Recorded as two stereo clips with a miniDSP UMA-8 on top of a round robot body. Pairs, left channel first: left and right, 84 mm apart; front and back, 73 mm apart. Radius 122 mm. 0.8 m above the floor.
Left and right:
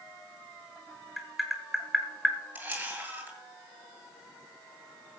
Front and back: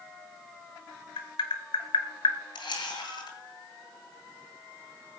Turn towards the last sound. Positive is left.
turn(degrees=-15)